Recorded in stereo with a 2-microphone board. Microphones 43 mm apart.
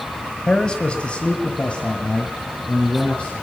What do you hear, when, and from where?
0.5 s a man speaking: 20° left (ahead or behind), 1.3 m; by 3.3 s 25° left (ahead or behind), 2.5 m